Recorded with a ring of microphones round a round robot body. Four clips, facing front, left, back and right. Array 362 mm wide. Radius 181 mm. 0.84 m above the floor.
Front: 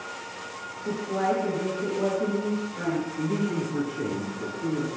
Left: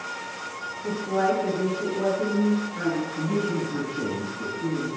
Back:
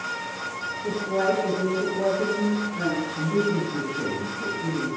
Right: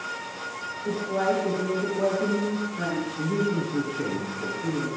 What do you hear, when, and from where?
0.8 s a woman speaking: 145° left, 7.5 m
3.2 s a man speaking: 105° left, 7 m